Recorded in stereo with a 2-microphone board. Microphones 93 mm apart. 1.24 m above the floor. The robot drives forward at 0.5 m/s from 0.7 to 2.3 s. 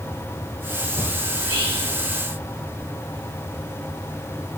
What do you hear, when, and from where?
1.3 s whispering: 50° right (ahead or behind), 1.5 m; by 1.9 s 40° right (ahead or behind), 1.6 m